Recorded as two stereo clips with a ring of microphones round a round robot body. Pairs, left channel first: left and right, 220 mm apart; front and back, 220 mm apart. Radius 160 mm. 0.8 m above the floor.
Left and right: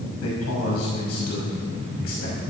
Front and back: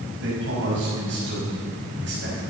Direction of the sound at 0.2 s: 125° left.